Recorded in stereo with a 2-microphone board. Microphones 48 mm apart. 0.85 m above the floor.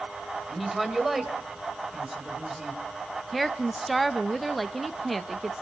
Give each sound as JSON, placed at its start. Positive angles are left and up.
{"t": 0.5, "sound": "a woman speaking", "side_deg": -5, "distance_m": 3.0}
{"t": 3.3, "sound": "a woman speaking", "side_deg": 0, "distance_m": 0.7}